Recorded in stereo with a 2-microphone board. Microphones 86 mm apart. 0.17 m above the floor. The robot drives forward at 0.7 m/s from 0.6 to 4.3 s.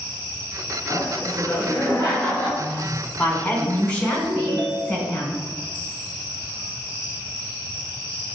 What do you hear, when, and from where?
0.9 s laughter: 30° left (ahead or behind), 1.3 m; by 2.5 s 20° left (ahead or behind), 1.8 m
2.6 s a woman speaking: 15° left (ahead or behind), 1.4 m
4.3 s a ringtone: 70° right (ahead or behind), 1.4 m